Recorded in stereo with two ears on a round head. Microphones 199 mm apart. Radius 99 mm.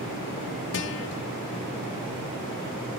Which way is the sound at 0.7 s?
55° left (ahead or behind).